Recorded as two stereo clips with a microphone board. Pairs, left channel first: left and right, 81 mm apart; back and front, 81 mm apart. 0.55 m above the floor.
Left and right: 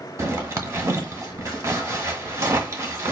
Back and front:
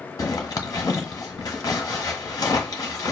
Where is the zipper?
135° right, 1.4 m.